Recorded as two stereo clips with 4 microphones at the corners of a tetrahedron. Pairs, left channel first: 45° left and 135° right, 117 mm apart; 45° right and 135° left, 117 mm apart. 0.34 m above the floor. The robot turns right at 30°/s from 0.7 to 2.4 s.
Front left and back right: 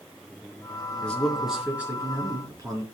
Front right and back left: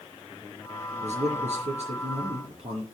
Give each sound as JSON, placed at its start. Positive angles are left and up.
{"t": 1.0, "sound": "a man speaking", "azimuth_deg": 125, "distance_m": 4.5}